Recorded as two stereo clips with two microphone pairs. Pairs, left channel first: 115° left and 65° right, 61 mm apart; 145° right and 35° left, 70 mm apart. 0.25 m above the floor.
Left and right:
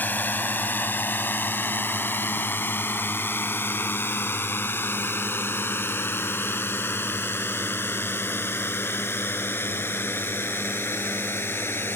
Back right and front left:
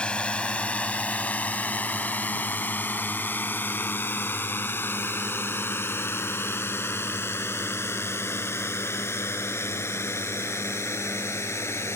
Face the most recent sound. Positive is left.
turn(degrees=165)